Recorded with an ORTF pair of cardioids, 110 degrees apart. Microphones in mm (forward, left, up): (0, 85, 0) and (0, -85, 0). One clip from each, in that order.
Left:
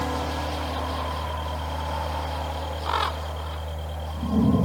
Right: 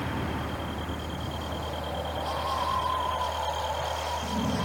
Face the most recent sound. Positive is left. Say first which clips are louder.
# left 5 dB
turn(degrees=40)